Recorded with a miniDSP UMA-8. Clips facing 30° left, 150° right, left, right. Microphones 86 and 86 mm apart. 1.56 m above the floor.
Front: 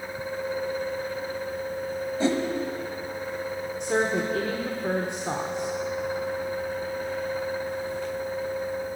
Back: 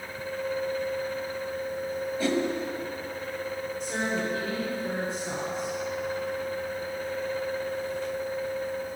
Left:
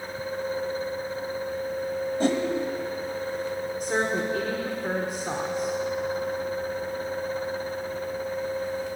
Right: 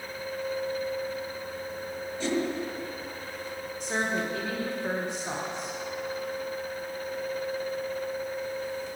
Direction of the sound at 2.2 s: 85° left.